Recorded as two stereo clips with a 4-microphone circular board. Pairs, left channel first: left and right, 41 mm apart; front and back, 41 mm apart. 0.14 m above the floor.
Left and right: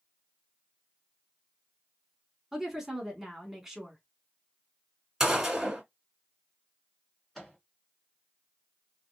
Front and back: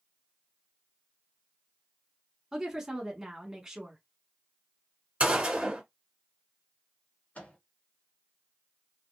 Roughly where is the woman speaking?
Behind right.